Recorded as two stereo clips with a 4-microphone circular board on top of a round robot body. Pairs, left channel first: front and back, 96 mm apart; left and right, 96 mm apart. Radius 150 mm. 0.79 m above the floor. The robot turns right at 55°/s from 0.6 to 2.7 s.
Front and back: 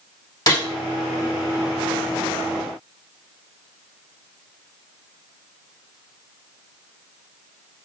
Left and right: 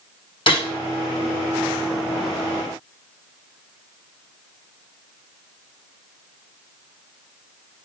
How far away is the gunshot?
About 2.5 m.